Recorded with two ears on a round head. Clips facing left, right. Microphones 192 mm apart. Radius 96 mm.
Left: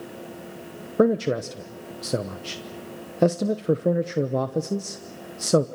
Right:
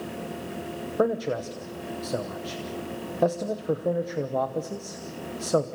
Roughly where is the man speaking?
Left.